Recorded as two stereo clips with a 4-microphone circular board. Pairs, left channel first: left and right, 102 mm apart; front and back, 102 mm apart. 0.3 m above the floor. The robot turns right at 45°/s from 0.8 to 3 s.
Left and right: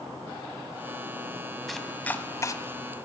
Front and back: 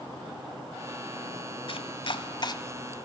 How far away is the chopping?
About 1.2 m.